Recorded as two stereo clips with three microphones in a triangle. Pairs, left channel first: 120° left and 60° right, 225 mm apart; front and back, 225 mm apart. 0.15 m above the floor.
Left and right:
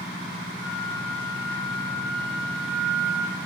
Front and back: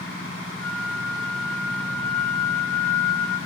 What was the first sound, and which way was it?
A flute, 170° right.